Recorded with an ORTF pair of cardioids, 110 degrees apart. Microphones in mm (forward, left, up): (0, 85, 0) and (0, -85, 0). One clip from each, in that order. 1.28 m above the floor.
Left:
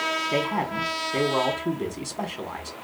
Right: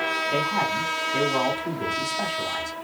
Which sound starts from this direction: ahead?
A man speaking, at 0.3 s.